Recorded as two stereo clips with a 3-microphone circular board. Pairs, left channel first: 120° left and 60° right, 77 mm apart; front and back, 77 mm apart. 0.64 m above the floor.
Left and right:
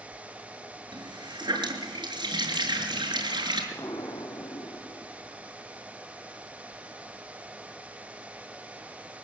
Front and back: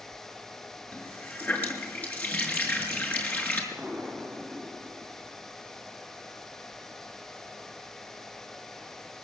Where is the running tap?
65° right, 6 m.